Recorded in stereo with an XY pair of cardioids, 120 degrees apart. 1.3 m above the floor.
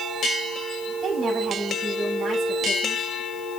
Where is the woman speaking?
30° right, 9.5 m.